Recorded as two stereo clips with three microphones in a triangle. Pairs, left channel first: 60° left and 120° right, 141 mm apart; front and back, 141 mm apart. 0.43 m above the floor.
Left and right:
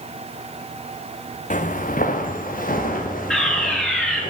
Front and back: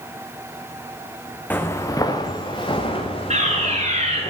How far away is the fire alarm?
About 8.5 m.